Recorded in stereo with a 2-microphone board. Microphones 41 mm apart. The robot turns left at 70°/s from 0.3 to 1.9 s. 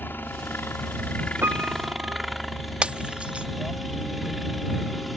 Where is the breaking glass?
30° right (ahead or behind).